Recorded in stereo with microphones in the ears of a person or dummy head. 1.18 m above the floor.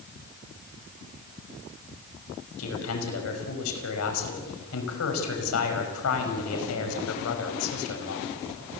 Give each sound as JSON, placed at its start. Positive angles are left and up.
{"t": 2.6, "sound": "a man speaking", "side_deg": 80, "distance_m": 5.5}